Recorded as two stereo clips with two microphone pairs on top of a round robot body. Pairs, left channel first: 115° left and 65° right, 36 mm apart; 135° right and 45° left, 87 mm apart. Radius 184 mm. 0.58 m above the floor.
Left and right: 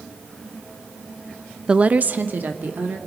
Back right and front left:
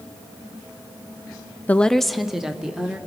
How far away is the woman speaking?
About 0.6 m.